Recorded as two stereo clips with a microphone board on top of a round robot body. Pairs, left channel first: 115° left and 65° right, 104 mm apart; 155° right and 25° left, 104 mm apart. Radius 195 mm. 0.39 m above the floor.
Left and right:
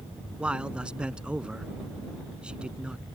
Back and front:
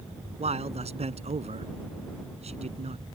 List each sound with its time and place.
0.4 s a man speaking: 15° left